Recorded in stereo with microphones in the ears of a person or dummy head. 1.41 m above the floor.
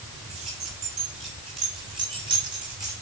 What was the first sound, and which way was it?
Keys jangling, 30° right (ahead or behind).